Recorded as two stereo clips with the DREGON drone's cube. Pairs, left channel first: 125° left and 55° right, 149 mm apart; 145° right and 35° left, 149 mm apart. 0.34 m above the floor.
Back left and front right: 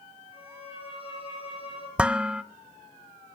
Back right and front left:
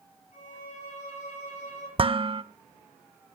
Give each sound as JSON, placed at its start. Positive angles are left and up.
{"t": 0.3, "sound": "a violin", "azimuth_deg": 175, "distance_m": 8.0}
{"t": 2.0, "sound": "dishes clattering", "azimuth_deg": 25, "distance_m": 0.6}